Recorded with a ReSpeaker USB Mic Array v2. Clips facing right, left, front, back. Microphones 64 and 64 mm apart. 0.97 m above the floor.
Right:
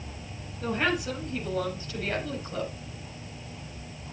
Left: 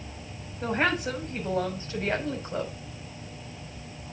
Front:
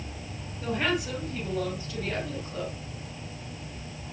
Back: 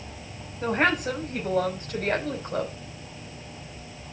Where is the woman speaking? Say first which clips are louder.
Left 1 dB, back 5 dB; 135° left, 5.5 m; by 2.7 s 155° left, 5 m.